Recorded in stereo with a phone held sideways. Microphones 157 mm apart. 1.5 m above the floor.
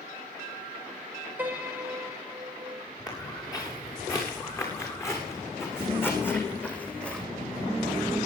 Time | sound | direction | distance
1.4 | a piano | 10° right (ahead or behind) | 4.5 m
3.1 | footsteps | 25° left (ahead or behind) | 9 m